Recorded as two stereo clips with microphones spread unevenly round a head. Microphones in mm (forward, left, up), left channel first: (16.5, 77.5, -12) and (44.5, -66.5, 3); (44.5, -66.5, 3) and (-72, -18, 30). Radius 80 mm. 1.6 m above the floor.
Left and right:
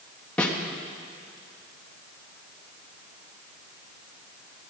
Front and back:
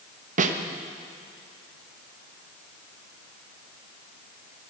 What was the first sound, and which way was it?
A snare drum, 175° right.